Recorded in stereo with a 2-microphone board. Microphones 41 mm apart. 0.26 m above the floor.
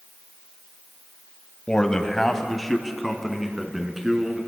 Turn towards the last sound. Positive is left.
turn(degrees=-15)  # may be behind; listen again after turning